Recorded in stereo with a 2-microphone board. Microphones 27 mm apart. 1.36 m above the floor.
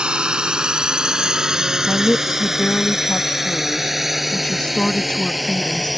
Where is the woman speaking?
40° left (ahead or behind).